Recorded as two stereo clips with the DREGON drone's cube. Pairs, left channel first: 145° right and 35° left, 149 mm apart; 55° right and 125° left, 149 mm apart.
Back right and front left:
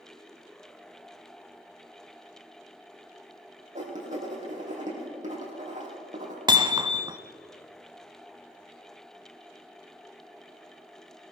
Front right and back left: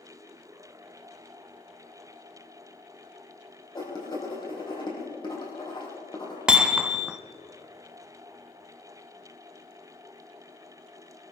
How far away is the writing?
About 4.5 m.